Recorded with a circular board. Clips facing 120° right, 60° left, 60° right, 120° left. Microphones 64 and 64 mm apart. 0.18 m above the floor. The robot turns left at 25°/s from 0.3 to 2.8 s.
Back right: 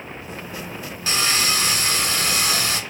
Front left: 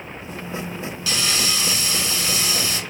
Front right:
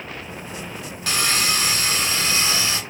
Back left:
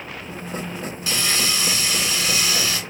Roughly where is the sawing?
Right.